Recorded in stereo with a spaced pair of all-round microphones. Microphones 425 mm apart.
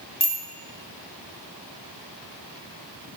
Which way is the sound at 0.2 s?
70° left (ahead or behind).